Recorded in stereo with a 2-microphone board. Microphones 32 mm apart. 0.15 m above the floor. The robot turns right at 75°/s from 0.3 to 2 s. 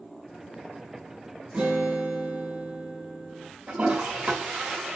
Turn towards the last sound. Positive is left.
turn(degrees=-50)  # may be behind; listen again after turning